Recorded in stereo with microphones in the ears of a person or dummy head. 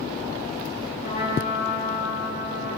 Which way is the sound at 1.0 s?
45° left (ahead or behind).